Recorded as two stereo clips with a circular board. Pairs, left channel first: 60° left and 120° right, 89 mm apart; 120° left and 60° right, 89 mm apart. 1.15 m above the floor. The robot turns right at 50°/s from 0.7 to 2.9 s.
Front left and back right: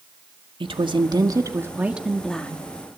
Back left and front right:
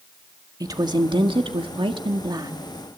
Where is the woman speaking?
105° right, 1.7 m; by 2.6 s 10° right, 1.7 m.